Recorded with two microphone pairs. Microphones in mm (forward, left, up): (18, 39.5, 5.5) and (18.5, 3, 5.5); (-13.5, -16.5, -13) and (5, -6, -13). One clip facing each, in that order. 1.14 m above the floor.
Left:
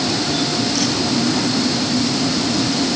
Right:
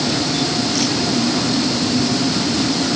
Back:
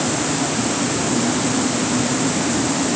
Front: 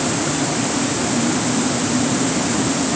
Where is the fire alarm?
I don't hear a fire alarm.